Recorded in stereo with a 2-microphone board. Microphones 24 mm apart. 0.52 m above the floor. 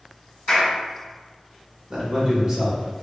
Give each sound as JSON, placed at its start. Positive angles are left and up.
{"t": 0.5, "sound": "a clap", "side_deg": 15, "distance_m": 0.9}
{"t": 1.9, "sound": "a man speaking", "side_deg": -35, "distance_m": 1.4}